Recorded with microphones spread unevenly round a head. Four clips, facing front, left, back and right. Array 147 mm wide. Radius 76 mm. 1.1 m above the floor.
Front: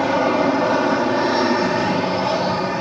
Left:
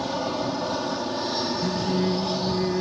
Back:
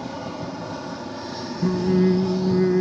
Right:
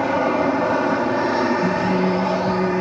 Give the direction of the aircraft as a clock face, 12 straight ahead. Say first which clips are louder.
Right 8 dB, front 14 dB; 1 o'clock.